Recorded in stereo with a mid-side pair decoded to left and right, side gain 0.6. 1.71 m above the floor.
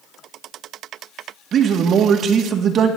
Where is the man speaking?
45° right, 1.9 m.